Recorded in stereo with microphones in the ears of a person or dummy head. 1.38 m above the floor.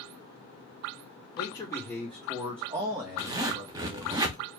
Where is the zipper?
20° right (ahead or behind), 0.5 m.